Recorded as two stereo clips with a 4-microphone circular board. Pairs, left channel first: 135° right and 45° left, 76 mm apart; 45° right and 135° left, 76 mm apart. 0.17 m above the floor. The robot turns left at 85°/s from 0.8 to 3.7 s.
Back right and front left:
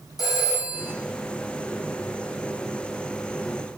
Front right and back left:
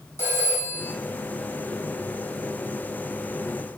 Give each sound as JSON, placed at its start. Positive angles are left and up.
{"t": 0.2, "sound": "a phone ringing", "azimuth_deg": -100, "distance_m": 4.5}